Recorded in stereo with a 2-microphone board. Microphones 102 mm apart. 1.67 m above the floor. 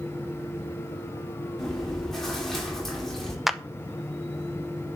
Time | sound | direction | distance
1.6 | chewing | 5° left (ahead or behind) | 4 m
3.5 | a clap | 5° right (ahead or behind) | 0.7 m